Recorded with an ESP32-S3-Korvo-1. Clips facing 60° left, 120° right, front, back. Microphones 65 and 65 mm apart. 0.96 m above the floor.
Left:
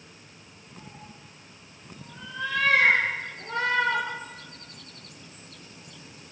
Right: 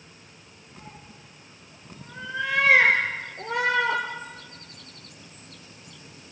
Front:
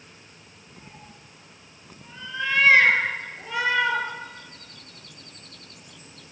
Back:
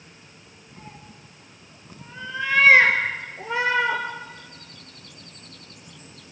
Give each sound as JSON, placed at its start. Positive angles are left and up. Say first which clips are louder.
{"t": 0.8, "sound": "a cat meowing", "louder": "even, back 3 dB", "azimuth_deg": -100, "distance_m": 3.5}